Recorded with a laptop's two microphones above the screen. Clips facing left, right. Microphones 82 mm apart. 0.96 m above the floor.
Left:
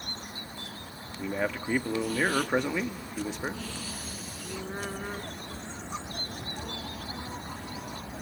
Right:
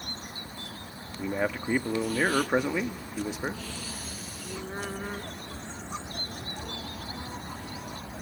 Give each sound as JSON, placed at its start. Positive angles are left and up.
{"t": 1.2, "sound": "a man speaking", "side_deg": -5, "distance_m": 1.3}